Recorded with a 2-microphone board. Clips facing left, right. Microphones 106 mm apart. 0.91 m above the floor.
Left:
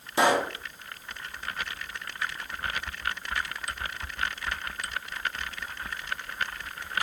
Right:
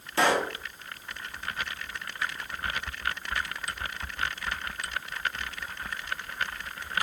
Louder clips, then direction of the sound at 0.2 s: Left 2 dB; 15° left (ahead or behind).